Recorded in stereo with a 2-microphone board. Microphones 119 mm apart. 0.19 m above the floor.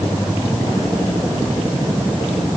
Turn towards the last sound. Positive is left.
No sound to turn to.